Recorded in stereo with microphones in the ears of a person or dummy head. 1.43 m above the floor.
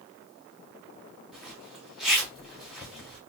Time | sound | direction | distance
1.3 | a zipper | centre (ahead or behind) | 1.9 m